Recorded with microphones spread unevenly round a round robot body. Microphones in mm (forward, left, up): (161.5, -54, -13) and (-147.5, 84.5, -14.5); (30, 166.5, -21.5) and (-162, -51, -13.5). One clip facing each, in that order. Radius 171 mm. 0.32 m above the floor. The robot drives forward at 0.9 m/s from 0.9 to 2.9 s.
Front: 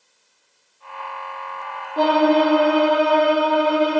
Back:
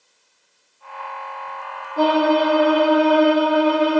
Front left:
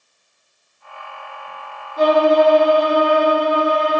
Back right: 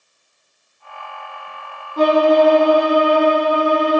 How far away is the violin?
About 2.5 m.